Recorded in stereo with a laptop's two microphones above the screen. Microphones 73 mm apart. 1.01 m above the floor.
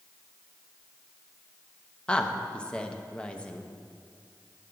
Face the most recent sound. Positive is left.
turn(degrees=15)  # may be behind; listen again after turning